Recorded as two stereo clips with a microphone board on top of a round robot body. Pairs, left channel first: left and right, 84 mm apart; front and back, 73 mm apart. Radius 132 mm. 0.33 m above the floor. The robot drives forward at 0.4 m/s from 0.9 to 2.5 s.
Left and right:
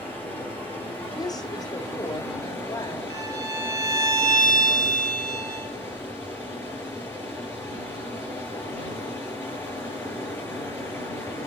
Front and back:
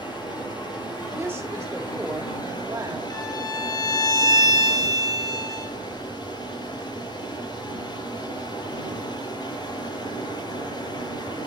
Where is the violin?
40° right, 2.5 m.